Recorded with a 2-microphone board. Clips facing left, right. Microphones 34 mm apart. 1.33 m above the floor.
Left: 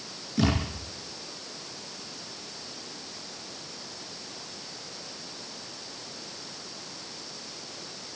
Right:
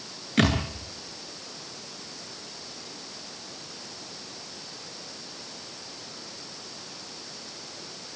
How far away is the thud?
About 9 m.